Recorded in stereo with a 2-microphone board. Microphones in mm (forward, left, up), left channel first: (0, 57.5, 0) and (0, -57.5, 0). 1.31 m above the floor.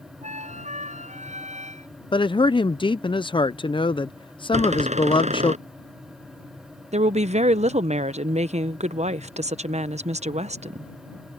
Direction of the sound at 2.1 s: 45° left (ahead or behind).